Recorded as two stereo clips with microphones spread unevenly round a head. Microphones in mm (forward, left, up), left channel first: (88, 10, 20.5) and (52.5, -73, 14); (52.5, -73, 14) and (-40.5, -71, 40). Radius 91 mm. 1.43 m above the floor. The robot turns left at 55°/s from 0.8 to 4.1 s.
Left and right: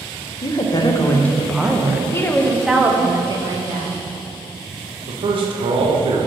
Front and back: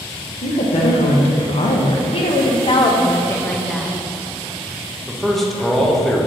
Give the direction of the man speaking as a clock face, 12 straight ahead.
3 o'clock.